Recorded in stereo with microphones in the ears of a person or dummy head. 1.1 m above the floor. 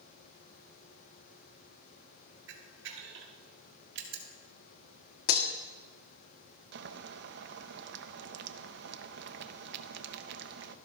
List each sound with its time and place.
2.5 s a camera shutter: 70° right (ahead or behind), 1.8 m
5.3 s breaking glass: 50° left (ahead or behind), 1.2 m
6.7 s boiling: 70° right (ahead or behind), 0.7 m